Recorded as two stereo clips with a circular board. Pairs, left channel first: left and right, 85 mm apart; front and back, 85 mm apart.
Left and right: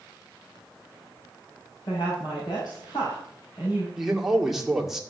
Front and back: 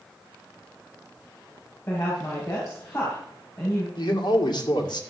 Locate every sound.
1.9 s a woman speaking: 60° left, 5 m
4.0 s a man speaking: 5° right, 2 m